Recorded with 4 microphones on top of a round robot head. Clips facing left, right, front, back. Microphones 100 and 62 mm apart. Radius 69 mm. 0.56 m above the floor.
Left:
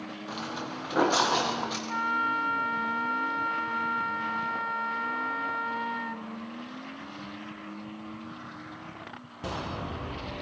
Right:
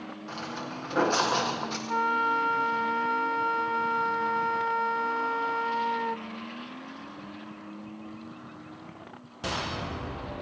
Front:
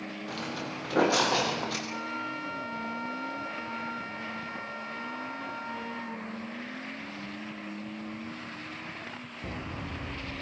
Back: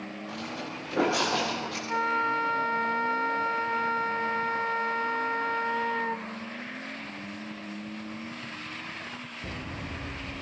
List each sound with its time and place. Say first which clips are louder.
0.3 s footsteps: left 1 dB, front 1 dB; 10° left, 7 m
1.9 s a flute: right 4 dB, back 8 dB; 140° right, 0.5 m